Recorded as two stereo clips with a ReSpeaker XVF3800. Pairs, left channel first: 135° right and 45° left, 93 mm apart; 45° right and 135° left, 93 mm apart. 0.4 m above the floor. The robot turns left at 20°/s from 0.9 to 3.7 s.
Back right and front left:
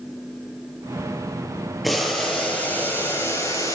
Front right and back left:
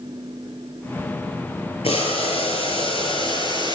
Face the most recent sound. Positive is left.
turn(degrees=-80)